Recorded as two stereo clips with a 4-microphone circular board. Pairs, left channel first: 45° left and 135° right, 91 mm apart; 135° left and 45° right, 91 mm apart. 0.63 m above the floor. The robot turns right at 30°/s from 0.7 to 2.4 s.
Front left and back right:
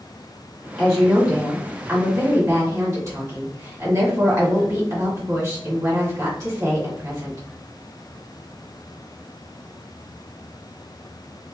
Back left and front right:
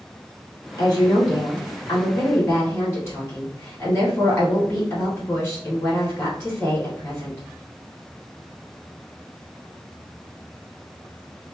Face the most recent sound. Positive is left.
turn(degrees=-170)